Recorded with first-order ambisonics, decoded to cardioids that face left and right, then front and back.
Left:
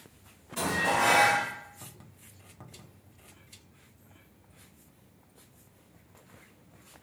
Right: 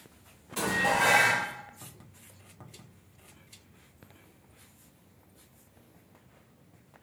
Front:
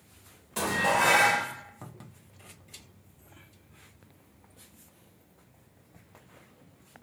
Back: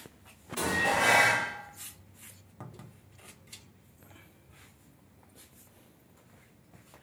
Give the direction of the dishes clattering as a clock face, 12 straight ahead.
1 o'clock.